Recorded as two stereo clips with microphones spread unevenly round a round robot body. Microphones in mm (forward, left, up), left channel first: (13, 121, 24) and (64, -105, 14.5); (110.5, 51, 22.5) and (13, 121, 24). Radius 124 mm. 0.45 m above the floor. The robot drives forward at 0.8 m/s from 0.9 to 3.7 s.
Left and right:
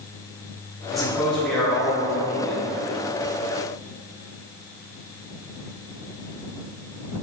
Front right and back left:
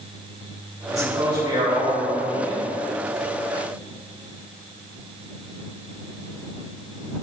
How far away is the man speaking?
About 1.2 m.